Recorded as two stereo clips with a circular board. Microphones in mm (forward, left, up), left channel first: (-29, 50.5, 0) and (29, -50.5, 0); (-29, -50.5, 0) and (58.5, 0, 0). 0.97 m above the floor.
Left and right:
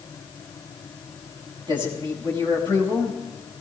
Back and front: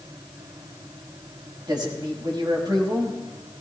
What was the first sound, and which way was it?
A man speaking, 15° right.